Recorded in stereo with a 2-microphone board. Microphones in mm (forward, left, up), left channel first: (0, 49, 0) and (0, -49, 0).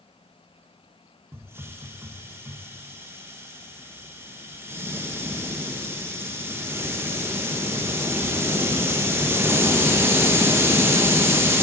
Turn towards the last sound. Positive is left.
turn(degrees=-25)  # may be behind; listen again after turning